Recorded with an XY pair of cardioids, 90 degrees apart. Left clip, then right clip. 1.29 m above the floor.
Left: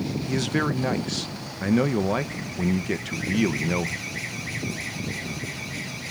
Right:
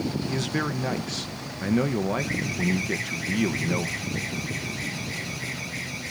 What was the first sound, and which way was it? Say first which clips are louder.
A man speaking: left 5 dB; 30° left.